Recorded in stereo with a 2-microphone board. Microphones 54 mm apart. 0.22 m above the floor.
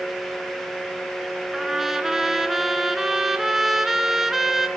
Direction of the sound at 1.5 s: 5° right (ahead or behind).